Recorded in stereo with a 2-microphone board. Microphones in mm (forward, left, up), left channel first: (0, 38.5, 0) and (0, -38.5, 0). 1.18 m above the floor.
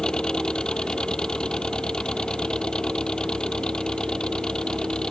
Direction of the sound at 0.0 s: 10° left (ahead or behind).